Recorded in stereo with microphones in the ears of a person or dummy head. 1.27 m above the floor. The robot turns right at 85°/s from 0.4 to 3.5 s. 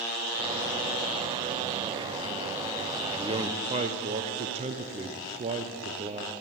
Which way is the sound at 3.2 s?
15° right (ahead or behind).